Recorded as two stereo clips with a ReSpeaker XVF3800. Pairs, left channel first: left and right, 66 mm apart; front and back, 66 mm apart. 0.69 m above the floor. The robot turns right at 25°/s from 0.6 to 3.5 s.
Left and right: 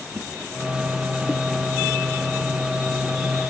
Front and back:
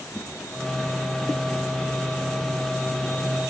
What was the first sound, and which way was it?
A whoosh, 70° right.